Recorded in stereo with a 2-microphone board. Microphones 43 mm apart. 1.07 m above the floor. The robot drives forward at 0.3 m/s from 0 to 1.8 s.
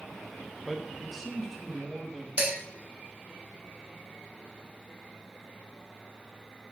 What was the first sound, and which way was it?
A man speaking, 5° left (ahead or behind).